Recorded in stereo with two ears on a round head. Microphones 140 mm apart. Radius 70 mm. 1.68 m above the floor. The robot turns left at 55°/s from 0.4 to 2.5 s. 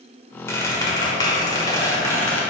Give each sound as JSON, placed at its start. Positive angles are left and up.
{"t": 0.5, "sound": "a squeak", "side_deg": 20, "distance_m": 1.5}